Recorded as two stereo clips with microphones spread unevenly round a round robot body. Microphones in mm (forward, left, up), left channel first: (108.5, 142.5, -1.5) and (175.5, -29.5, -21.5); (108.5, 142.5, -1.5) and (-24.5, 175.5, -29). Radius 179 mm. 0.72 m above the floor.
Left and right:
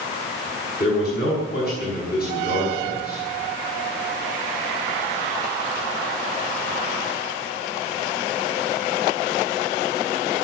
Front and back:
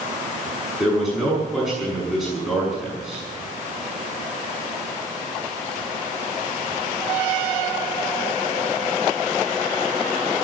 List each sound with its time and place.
0.8 s a man speaking: 80° left, 7 m